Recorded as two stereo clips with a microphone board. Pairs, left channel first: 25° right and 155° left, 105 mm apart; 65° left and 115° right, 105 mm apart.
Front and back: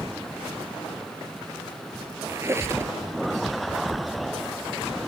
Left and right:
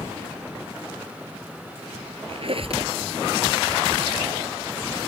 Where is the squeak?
140° right.